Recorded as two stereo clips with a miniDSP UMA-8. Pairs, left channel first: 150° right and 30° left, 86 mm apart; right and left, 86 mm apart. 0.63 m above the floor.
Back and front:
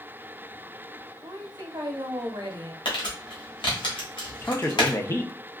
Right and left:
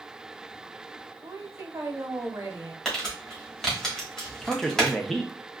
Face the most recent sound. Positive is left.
turn(degrees=-175)